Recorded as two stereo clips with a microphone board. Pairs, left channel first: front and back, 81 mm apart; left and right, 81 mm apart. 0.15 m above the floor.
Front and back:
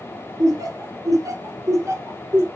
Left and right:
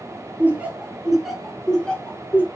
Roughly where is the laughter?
Behind right.